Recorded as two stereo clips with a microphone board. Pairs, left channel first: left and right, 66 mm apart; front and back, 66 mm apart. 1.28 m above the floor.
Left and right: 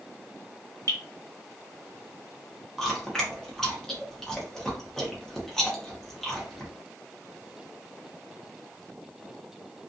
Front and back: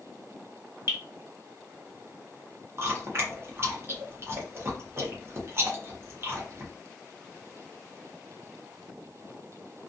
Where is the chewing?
170° left, 0.8 m.